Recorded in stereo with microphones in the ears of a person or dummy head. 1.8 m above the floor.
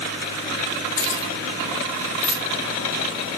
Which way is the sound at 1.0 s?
50° left (ahead or behind).